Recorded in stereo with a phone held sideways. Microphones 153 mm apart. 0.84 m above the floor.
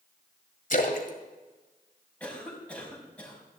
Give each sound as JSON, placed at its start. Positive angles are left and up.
{"t": 0.7, "sound": "a splash", "side_deg": 60, "distance_m": 1.8}
{"t": 2.2, "sound": "a cough", "side_deg": 10, "distance_m": 5.5}